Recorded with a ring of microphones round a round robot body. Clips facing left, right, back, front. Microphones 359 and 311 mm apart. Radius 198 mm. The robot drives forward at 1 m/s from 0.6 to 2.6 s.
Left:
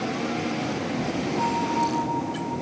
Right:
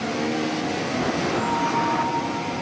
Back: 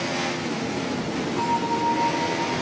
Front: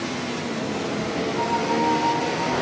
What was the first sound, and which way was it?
A bell, 135° right.